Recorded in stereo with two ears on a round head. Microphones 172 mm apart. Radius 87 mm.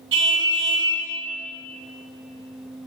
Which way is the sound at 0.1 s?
75° right (ahead or behind).